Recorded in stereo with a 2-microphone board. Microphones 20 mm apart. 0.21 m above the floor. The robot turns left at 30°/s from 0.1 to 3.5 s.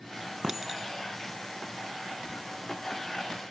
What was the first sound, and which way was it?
A clink, 25° right (ahead or behind).